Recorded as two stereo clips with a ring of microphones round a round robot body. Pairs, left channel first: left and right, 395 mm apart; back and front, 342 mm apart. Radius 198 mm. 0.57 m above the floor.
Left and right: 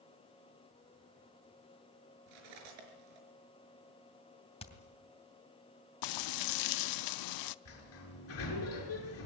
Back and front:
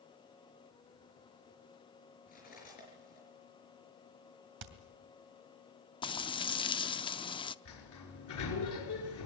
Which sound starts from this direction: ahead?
Hammering, at 4.6 s.